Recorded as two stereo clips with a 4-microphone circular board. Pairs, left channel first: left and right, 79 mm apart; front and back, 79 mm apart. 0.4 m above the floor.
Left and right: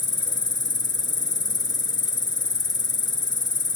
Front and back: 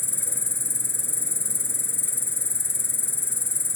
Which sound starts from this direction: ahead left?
An insect, at 0.0 s.